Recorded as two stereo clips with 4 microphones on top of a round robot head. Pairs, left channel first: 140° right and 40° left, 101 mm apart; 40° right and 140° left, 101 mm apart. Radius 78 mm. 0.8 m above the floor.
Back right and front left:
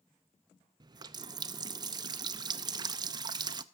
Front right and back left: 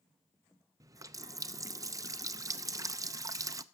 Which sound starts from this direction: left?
A running tap, at 0.8 s.